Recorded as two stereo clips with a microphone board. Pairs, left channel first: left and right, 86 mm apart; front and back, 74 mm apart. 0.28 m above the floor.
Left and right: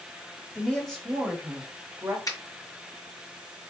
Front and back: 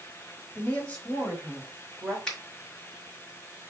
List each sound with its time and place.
0.6 s a woman speaking: 35° left, 1.5 m; by 2.2 s 75° right, 1.7 m
2.3 s a finger snap: 75° left, 1.6 m